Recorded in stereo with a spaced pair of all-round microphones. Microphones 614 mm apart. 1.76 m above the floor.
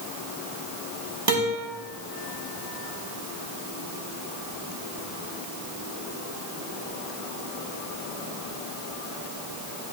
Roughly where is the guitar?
Right.